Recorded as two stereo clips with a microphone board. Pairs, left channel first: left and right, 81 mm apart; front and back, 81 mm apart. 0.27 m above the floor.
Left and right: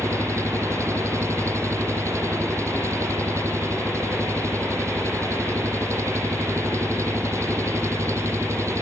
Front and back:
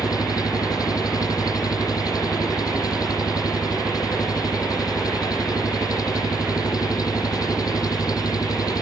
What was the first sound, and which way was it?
An engine running, 40° right.